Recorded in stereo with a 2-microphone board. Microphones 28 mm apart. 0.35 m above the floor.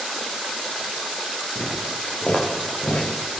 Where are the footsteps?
50° left (ahead or behind), 6 m; by 3.4 s 75° left (ahead or behind), 5 m.